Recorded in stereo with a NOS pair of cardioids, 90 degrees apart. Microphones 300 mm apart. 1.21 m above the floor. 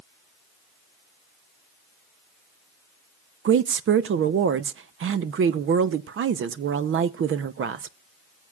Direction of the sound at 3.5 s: 45° right.